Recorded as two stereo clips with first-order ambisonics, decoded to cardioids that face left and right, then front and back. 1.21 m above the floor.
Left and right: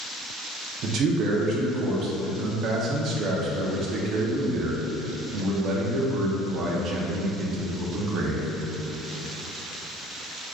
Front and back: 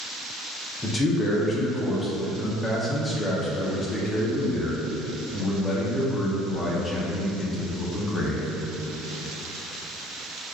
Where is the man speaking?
70° right, 0.5 m.